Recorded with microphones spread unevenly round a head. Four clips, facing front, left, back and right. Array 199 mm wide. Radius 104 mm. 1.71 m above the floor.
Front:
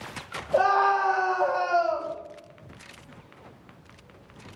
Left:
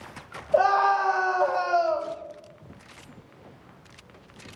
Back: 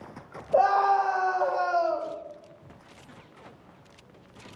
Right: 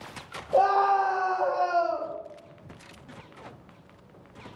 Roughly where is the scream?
Right.